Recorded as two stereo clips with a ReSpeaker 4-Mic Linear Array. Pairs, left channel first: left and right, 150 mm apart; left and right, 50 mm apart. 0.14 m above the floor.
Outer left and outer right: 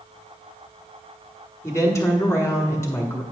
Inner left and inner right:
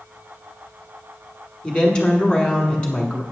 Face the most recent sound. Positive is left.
turn(degrees=20)  # may be behind; listen again after turning